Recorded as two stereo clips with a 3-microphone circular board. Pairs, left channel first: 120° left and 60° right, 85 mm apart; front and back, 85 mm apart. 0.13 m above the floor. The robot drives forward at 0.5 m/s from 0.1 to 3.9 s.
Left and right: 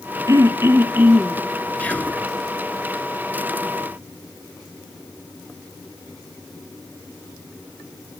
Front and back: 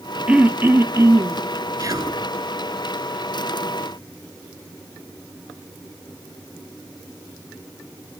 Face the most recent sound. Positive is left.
turn(degrees=-175)